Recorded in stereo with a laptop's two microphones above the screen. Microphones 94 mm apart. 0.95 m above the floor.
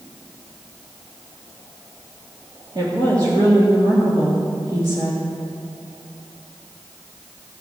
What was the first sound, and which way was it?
A woman speaking, 50° right (ahead or behind).